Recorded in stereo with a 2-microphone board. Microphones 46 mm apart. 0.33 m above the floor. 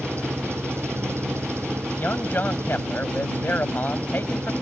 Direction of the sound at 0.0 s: 80° right.